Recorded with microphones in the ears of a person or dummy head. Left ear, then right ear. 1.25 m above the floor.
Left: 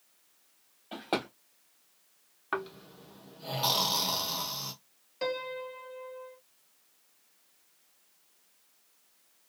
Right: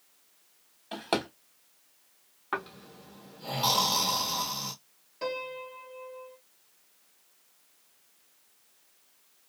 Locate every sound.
0.9 s a drawer: 10° right (ahead or behind), 1.1 m
2.5 s snoring: 15° left (ahead or behind), 0.9 m
5.2 s a piano: 30° left (ahead or behind), 0.8 m